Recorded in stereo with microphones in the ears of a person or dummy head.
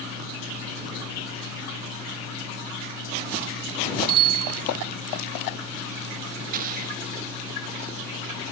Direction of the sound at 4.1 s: 30° right (ahead or behind).